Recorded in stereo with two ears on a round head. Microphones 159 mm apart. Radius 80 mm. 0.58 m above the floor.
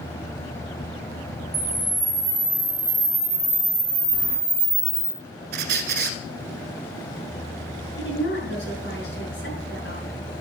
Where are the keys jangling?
80° left, 6.5 m.